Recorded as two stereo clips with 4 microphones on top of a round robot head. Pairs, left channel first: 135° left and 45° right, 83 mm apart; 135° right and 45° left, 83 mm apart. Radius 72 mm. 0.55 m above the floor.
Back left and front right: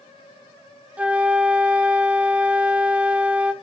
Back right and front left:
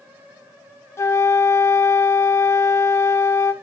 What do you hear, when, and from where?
1.0 s a flute: 110° right, 0.7 m